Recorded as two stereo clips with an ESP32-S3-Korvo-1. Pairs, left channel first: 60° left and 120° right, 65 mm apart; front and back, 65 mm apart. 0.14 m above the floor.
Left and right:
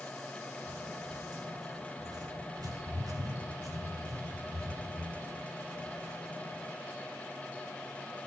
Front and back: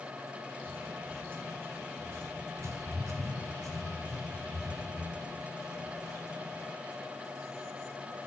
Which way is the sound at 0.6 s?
120° right.